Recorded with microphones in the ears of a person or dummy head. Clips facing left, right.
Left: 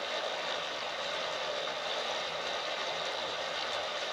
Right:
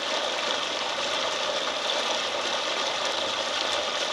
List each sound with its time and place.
0.0 s running water: 65° right (ahead or behind), 1.7 m